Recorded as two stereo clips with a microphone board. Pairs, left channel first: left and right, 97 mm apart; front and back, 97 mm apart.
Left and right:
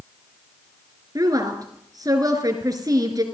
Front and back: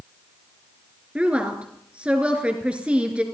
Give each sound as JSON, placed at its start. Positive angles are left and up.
{"t": 1.1, "sound": "a woman speaking", "azimuth_deg": -105, "distance_m": 2.5}